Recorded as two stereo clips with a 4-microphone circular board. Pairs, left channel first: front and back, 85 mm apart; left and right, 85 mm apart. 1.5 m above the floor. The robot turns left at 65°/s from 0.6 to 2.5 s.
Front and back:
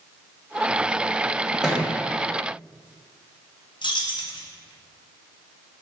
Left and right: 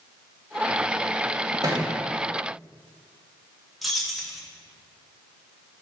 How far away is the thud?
About 1.1 m.